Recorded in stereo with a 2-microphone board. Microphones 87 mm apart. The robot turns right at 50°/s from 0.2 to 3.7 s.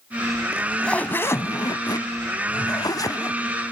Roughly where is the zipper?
Ahead.